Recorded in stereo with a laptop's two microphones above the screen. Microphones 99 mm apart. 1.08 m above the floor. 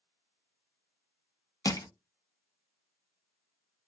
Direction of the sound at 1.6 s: 35° left (ahead or behind).